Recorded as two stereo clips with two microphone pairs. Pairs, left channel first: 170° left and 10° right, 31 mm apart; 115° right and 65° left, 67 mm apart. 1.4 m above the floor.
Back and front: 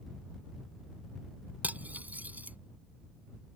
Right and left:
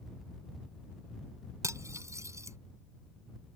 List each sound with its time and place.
1.6 s cutlery clinking: 20° left